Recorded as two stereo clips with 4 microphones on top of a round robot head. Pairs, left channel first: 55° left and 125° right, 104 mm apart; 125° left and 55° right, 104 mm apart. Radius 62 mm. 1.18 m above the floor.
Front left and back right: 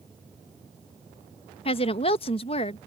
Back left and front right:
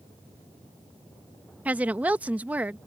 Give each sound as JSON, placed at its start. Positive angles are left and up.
{"t": 1.6, "sound": "a woman speaking", "azimuth_deg": 25}